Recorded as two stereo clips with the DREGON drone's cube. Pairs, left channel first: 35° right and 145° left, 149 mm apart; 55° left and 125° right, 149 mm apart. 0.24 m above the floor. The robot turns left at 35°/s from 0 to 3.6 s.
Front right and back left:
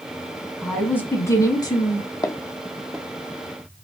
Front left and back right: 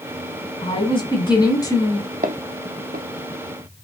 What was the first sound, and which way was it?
A woman speaking, 45° left.